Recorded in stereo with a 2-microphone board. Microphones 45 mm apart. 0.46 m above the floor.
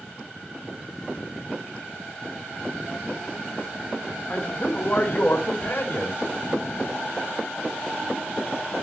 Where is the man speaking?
35° left (ahead or behind), 1.5 m; by 6.2 s 55° left (ahead or behind), 2.5 m.